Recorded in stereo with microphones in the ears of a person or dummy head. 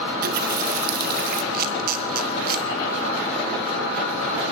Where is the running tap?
45° right (ahead or behind), 1.0 m.